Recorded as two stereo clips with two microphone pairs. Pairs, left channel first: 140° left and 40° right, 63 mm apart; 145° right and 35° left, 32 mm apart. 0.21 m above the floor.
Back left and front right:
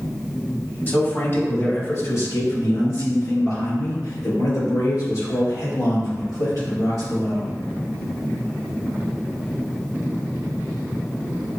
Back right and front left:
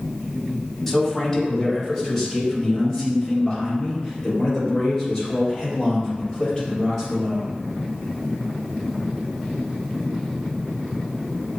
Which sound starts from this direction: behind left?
A man speaking, at 0.9 s.